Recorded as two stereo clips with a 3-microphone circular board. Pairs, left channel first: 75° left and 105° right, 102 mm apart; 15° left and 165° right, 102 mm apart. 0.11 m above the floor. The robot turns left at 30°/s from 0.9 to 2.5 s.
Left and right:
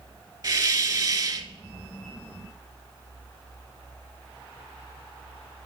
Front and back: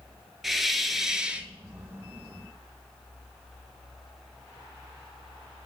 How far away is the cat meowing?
No cat meowing in this recording.